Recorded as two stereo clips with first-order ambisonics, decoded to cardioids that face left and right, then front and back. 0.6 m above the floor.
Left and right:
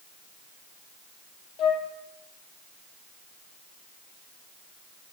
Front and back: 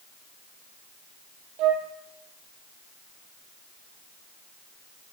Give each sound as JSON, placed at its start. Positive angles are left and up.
{"t": 1.6, "sound": "a flute", "azimuth_deg": 140, "distance_m": 3.0}